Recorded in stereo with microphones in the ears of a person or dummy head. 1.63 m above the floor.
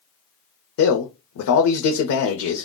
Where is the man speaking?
90° left, 0.6 m.